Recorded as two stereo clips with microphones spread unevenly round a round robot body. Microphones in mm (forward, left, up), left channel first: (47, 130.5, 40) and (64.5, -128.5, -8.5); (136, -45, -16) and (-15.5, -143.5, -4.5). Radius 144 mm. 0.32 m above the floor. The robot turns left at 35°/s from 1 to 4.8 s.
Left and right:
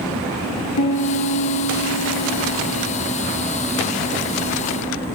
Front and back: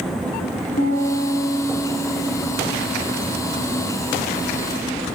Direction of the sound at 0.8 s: 90° left.